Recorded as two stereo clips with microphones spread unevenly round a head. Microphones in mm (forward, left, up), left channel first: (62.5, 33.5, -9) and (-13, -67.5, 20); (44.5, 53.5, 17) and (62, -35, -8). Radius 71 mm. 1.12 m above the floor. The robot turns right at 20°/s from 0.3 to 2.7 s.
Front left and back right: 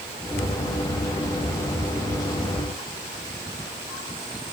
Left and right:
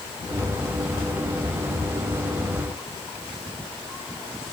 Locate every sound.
Only background noise.